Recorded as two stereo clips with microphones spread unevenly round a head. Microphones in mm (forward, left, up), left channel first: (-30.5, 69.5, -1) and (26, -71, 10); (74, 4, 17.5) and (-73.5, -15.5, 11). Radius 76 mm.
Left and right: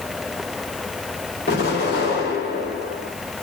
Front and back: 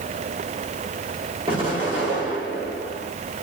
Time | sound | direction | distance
1.5 | an explosion | 130° left | 4 m